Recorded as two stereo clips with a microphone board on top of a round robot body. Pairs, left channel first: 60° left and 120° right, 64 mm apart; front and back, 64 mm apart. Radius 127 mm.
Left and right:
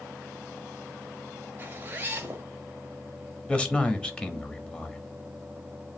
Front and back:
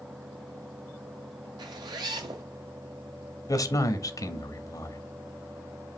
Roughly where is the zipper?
Behind.